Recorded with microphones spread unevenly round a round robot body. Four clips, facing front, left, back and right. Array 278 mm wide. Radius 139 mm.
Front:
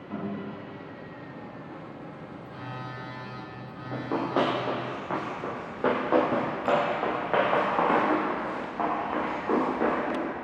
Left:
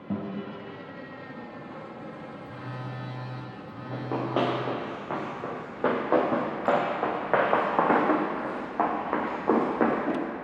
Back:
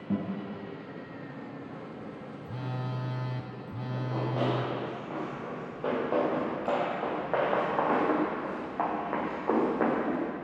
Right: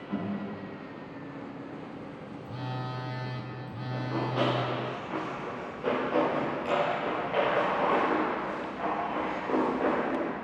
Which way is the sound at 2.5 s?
170° right.